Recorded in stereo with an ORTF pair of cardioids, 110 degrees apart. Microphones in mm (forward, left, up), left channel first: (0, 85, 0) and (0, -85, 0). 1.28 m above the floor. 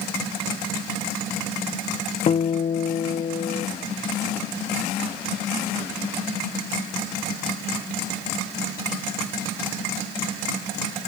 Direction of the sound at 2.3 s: 35° left.